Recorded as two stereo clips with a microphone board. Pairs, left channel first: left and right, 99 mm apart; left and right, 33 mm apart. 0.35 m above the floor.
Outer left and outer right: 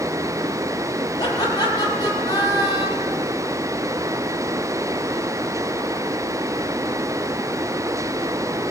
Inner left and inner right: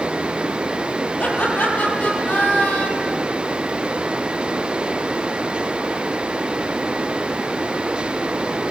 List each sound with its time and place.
1.2 s laughter: 45° left (ahead or behind), 9.5 m